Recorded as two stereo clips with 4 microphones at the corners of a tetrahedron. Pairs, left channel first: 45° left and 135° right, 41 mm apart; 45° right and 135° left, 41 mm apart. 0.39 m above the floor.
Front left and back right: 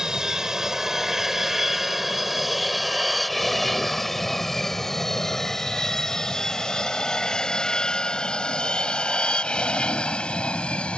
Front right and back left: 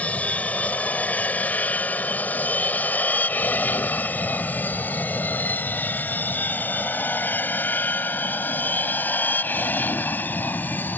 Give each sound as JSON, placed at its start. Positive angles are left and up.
{"t": 0.0, "sound": "an aircraft", "azimuth_deg": -70}